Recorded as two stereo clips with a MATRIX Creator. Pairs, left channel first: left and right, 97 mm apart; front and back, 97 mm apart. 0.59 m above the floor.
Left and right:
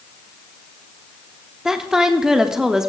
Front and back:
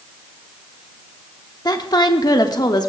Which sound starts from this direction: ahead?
A woman speaking, at 1.6 s.